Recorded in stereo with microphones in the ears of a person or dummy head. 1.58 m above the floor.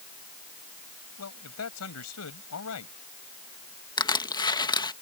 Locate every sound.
1.2 s a man speaking: 85° left
4.0 s crushing: 20° left (ahead or behind)